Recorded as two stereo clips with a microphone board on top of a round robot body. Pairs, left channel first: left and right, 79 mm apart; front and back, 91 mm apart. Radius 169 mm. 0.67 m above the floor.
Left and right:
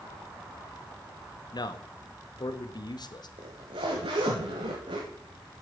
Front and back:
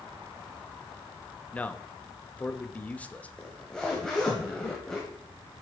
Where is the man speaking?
75° left, 0.8 m.